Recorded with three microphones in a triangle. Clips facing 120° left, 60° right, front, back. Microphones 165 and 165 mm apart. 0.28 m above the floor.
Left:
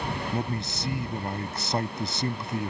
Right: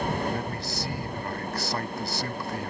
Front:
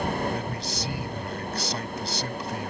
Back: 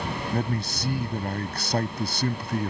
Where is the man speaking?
Straight behind.